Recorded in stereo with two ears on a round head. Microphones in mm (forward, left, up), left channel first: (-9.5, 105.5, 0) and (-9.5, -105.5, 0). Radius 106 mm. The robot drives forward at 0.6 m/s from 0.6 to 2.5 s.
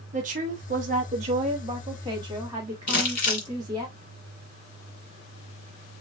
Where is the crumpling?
40° left (ahead or behind), 2.0 m.